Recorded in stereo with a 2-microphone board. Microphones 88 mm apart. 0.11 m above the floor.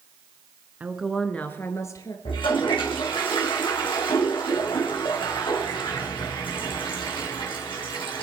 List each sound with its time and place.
0.8 s a woman speaking: 20° right (ahead or behind), 1.1 m; by 2.1 s 40° left (ahead or behind), 1.8 m
2.2 s a toilet flushing: 80° left, 3.5 m